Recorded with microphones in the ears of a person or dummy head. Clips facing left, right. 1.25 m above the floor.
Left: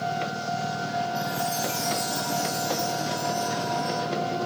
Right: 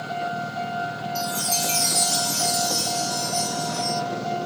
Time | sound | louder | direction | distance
1.1 | a chime | even | 50° right (ahead or behind) | 1.0 m